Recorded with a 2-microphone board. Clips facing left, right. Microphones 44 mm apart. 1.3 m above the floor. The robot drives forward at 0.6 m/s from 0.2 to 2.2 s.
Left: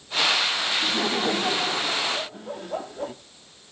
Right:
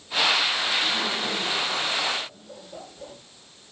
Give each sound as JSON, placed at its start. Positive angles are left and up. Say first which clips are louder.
{"t": 0.8, "sound": "laughter", "louder": "left 2 dB", "side_deg": 45, "distance_m": 2.0}